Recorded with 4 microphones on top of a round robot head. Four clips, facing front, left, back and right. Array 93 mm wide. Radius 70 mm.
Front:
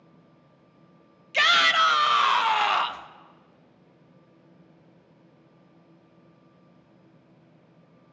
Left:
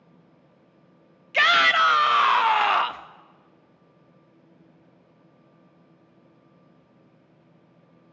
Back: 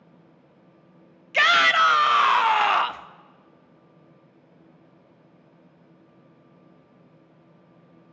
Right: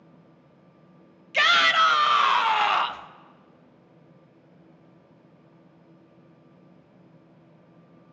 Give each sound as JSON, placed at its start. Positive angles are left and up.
{"t": 1.3, "sound": "a shout", "azimuth_deg": 140, "distance_m": 0.8}